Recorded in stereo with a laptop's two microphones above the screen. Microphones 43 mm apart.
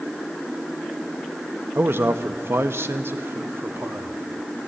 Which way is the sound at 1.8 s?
60° right (ahead or behind).